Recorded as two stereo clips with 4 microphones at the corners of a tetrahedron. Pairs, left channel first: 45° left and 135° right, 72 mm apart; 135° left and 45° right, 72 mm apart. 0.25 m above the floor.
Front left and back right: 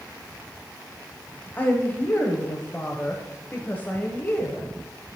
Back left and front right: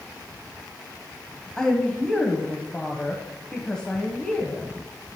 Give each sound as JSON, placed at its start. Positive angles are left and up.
{"t": 1.6, "sound": "a woman speaking", "azimuth_deg": 70, "distance_m": 1.0}